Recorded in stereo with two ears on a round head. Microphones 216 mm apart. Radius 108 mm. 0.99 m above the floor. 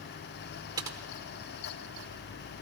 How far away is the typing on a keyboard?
About 0.9 m.